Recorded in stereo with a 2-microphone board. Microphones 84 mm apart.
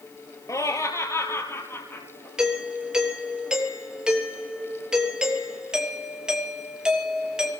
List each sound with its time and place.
0.5 s laughter: 40° left (ahead or behind), 2.5 m; by 2.3 s 25° left (ahead or behind), 4 m
2.4 s a doorbell: 10° right (ahead or behind), 3 m